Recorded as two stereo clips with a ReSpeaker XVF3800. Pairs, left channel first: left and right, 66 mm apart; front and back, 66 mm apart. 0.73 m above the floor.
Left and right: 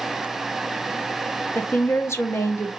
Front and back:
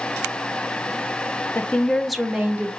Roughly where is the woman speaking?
Ahead left.